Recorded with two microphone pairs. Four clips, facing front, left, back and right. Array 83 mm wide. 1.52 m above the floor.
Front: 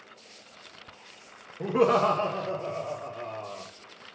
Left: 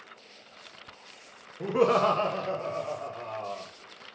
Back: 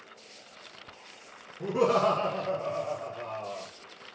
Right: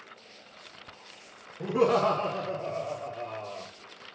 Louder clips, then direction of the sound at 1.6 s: Left 1 dB, front 2 dB; 35° left.